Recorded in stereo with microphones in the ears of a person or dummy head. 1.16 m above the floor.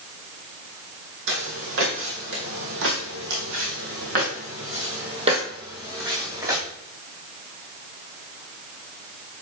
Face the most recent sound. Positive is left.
turn(degrees=-20)  # may be behind; listen again after turning